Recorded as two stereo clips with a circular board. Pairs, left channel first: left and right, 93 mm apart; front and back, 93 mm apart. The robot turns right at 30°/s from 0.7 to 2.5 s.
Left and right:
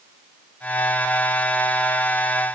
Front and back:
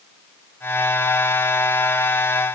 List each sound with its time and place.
Only background noise.